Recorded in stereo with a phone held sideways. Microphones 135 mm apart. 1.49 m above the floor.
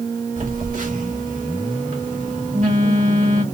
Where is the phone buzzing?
75° right (ahead or behind), 1.8 m.